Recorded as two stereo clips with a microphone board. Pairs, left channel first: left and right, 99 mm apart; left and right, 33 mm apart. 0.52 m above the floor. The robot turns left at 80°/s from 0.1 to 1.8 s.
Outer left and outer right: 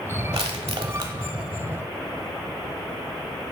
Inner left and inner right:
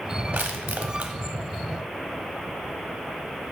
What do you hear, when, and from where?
0.3 s crushing: 70° right (ahead or behind), 0.9 m; by 1.1 s 40° right (ahead or behind), 0.9 m